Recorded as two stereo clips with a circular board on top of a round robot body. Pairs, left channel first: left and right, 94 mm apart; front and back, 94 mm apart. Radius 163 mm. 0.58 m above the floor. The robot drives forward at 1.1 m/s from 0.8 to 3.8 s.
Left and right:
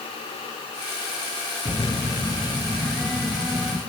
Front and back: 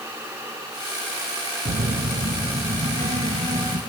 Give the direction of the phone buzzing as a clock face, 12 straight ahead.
6 o'clock.